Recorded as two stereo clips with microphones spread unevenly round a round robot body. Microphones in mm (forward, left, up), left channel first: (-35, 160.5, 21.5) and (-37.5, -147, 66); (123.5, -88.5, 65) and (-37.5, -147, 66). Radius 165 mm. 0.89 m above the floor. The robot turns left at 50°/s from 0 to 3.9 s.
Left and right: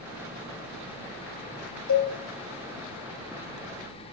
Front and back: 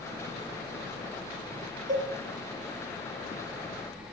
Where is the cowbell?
125° left, 1.9 m; by 2.1 s 115° left, 1.9 m.